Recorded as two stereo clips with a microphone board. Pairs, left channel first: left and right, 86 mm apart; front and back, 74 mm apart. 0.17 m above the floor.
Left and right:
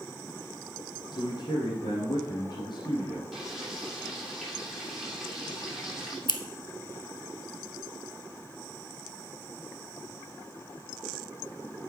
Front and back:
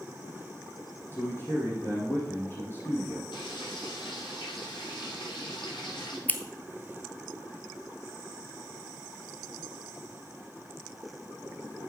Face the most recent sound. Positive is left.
turn(degrees=70)